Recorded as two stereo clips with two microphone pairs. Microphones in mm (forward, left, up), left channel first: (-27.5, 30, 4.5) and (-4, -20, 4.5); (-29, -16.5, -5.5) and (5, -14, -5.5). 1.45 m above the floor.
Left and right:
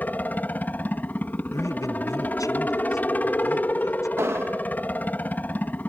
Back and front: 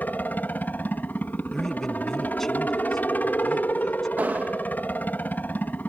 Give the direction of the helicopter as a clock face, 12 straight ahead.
6 o'clock.